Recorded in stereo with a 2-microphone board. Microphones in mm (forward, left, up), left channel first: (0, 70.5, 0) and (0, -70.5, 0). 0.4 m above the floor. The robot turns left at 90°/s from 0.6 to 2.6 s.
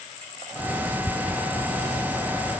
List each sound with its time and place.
Only background noise.